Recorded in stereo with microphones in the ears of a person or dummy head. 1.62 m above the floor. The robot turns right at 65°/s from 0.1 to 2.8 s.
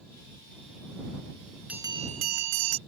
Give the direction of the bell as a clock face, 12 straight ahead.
6 o'clock.